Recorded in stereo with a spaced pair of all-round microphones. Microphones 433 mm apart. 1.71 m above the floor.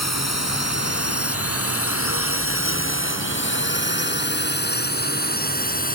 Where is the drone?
35° left (ahead or behind); by 6.0 s 20° left (ahead or behind).